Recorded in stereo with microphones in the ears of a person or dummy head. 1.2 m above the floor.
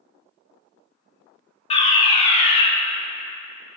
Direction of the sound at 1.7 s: 25° left (ahead or behind).